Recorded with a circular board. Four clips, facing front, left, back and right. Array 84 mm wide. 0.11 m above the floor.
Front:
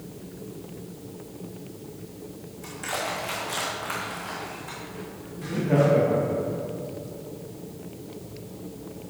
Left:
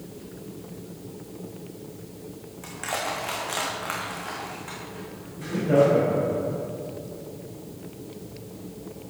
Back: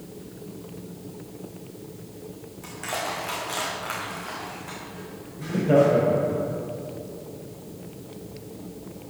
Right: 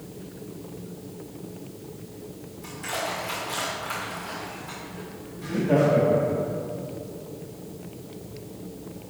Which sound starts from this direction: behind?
Laughter, at 5.4 s.